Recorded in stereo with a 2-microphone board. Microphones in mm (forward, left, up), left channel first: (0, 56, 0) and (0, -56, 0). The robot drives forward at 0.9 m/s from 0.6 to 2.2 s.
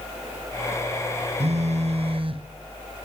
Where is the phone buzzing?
70° right (ahead or behind), 0.8 m; by 2.4 s 55° right (ahead or behind), 0.9 m.